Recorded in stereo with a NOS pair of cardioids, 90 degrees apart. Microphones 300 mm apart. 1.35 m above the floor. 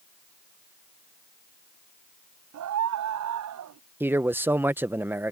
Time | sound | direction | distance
2.5 | a scream | 70° right | ?
4.0 | a man speaking | 5° right | ?